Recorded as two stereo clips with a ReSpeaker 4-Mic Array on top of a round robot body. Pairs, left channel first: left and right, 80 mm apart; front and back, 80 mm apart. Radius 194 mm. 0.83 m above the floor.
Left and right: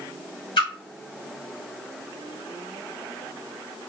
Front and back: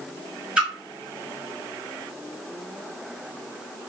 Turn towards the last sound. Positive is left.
turn(degrees=100)